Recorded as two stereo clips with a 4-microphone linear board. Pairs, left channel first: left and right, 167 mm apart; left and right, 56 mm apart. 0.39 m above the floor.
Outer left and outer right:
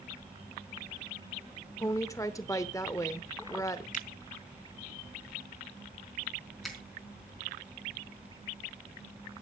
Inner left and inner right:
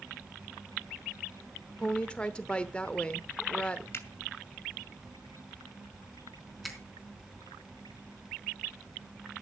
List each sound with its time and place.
1.8 s a woman speaking: 20° left (ahead or behind), 0.9 m
3.9 s a finger snap: 50° left (ahead or behind), 2.5 m
6.6 s a finger snap: centre (ahead or behind), 3.5 m